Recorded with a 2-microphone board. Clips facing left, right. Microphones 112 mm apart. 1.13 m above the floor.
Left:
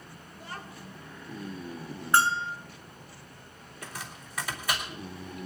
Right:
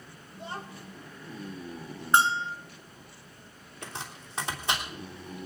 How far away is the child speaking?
About 0.8 m.